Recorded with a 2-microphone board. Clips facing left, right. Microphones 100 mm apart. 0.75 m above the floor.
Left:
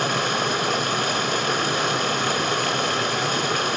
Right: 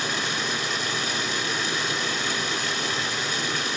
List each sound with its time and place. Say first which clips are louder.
0.0 s running water: left 6 dB; 55° left (ahead or behind), 1.4 m